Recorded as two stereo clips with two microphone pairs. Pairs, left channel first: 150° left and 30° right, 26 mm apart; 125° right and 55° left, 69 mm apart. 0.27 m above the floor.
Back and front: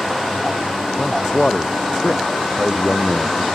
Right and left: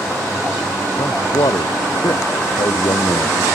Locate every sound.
1.0 s a man speaking: 145° right